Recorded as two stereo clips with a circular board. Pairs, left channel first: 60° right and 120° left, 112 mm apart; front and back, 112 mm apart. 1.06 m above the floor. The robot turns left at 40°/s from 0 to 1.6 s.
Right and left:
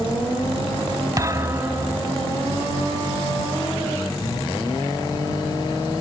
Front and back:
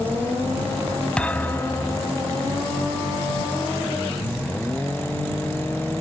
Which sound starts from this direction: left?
A thud, at 1.2 s.